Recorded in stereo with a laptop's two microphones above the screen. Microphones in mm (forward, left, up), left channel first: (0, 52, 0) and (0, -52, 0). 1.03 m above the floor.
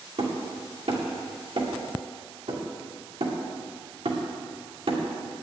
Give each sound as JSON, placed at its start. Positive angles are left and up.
{"t": 0.2, "sound": "hammering", "side_deg": -70, "distance_m": 2.0}